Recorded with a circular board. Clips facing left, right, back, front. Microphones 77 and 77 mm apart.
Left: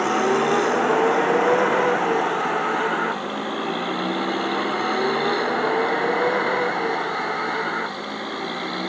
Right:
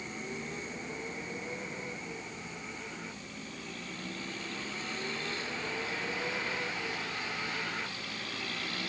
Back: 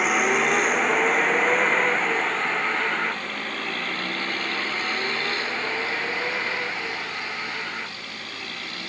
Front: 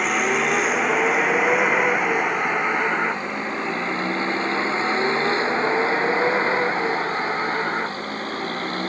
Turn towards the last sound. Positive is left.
turn(degrees=45)